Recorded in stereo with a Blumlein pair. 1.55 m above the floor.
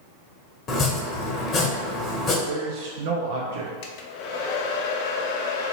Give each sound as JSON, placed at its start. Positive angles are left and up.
{"t": 0.7, "sound": "chopping", "azimuth_deg": 25, "distance_m": 1.1}
{"t": 2.5, "sound": "a man speaking", "azimuth_deg": -55, "distance_m": 0.7}
{"t": 3.8, "sound": "a hair dryer", "azimuth_deg": 45, "distance_m": 0.6}